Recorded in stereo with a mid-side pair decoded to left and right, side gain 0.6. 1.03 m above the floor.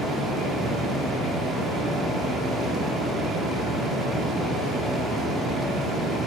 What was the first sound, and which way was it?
A fan, 45° right.